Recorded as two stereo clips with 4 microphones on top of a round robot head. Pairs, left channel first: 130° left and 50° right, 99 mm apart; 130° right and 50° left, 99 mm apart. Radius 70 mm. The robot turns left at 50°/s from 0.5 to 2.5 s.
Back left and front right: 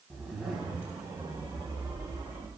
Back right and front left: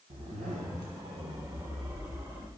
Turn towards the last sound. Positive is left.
turn(degrees=-55)